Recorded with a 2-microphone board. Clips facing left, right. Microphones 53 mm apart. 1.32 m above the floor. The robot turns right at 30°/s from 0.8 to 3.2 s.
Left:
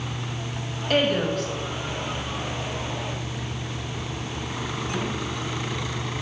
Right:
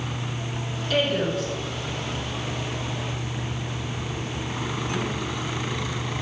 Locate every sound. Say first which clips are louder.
0.9 s a woman speaking: left 2 dB; 55° left (ahead or behind), 1.4 m; by 1.5 s 70° left (ahead or behind), 1.4 m